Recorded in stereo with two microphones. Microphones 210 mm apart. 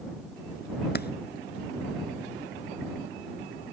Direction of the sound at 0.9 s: 50° left (ahead or behind).